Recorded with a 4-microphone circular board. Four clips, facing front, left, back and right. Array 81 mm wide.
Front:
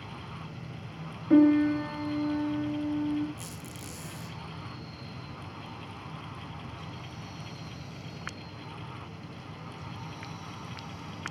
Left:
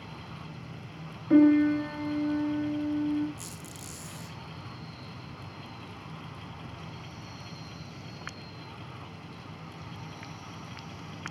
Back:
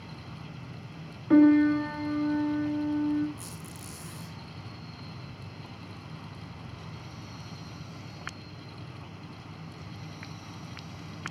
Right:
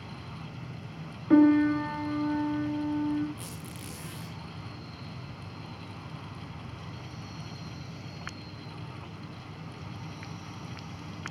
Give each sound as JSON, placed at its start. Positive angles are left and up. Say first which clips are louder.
{"t": 1.3, "sound": "a piano", "louder": "even, back 2 dB", "azimuth_deg": -135, "distance_m": 1.5}
{"t": 3.4, "sound": "a squeak", "louder": "right 2 dB, front 1 dB", "azimuth_deg": -85, "distance_m": 2.0}